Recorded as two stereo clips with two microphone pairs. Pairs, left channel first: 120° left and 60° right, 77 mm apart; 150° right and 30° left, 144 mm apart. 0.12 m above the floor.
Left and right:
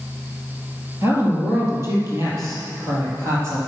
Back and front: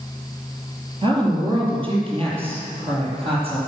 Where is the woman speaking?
15° right, 3 m.